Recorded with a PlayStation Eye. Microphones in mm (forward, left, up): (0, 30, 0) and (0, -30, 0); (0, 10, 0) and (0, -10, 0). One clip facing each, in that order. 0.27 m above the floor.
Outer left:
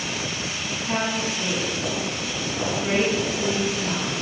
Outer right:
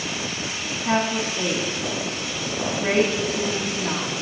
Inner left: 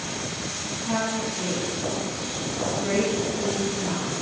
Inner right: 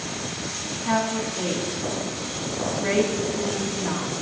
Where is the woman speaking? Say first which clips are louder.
Outer right 4 dB, inner right 3 dB; 60° right (ahead or behind), 1.6 m.